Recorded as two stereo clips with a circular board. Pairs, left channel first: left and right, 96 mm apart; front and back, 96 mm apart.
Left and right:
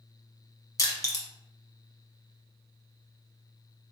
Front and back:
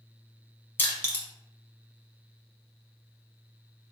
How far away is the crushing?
About 0.9 m.